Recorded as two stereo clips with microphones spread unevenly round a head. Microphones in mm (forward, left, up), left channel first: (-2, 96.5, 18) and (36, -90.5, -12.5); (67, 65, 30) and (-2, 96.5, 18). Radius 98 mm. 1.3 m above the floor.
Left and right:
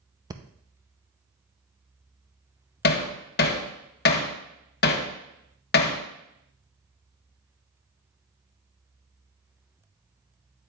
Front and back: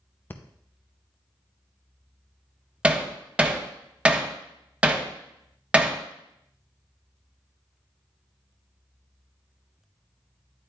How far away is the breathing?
About 0.6 m.